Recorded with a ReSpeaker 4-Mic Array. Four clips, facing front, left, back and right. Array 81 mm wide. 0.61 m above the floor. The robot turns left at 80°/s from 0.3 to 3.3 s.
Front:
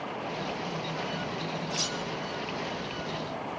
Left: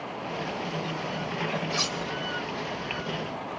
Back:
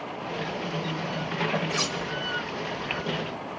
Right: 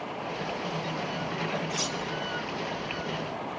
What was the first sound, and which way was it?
Cutlery clinking, 155° left.